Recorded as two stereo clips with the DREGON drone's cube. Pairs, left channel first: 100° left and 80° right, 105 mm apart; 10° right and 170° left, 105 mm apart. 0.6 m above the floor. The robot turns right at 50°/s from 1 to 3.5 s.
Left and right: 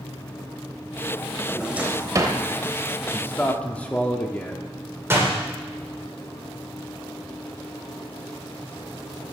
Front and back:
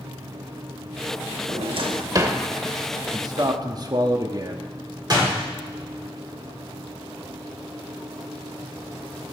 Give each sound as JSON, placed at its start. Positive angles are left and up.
{"t": 1.5, "sound": "a drawer", "azimuth_deg": -170, "distance_m": 0.7}
{"t": 3.1, "sound": "a man speaking", "azimuth_deg": 145, "distance_m": 0.7}
{"t": 5.1, "sound": "a door slam", "azimuth_deg": -140, "distance_m": 1.6}